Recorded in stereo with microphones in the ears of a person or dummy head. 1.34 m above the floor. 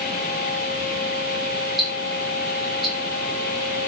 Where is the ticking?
Centre (ahead or behind), 0.8 m.